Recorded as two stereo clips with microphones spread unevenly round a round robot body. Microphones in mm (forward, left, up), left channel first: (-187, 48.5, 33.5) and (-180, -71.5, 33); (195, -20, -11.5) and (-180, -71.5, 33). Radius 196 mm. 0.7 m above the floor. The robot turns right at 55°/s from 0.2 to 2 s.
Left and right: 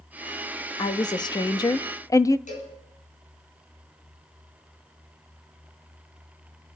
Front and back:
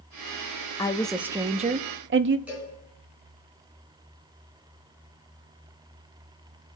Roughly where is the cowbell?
Left.